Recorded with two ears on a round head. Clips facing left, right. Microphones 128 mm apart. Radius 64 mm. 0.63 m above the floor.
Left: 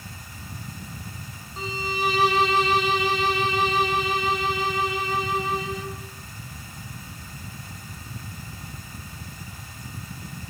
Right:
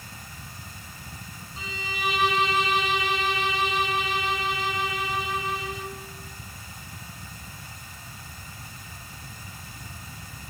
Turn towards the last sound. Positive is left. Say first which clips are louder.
# left 6 dB
turn(degrees=30)  # may be behind; listen again after turning